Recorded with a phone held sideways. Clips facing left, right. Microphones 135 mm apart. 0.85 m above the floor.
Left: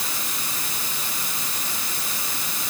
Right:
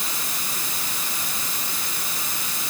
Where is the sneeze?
I don't hear a sneeze.